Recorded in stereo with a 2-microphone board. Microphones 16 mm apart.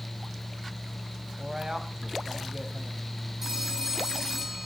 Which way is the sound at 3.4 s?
25° right (ahead or behind).